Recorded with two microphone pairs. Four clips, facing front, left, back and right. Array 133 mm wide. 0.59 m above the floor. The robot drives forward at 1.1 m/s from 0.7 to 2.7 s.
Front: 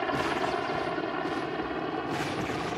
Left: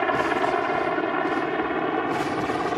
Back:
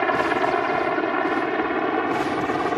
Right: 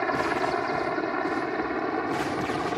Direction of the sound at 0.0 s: 155° left.